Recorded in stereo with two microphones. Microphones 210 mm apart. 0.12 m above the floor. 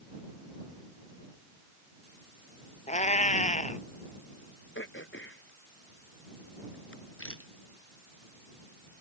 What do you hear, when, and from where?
2.9 s a cat meowing: 35° left (ahead or behind)
4.8 s throat clearing: 60° left (ahead or behind)
7.2 s a rattle: 75° left (ahead or behind)